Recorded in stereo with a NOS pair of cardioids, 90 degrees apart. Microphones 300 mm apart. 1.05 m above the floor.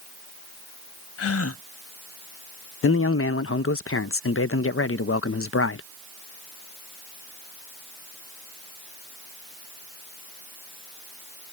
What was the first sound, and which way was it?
A gasp, 50° left.